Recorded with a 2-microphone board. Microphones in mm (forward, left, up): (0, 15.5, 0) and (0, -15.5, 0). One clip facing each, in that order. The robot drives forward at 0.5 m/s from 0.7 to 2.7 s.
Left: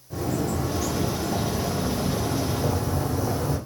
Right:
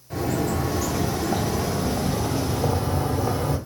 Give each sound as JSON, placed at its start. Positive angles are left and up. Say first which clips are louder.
{"t": 0.1, "sound": "a bird", "louder": "right 2 dB", "side_deg": -75, "distance_m": 1.0}